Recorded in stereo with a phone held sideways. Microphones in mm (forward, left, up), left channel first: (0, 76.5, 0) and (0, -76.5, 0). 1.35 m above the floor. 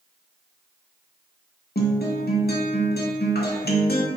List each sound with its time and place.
1.8 s a guitar: 80° left, 0.7 m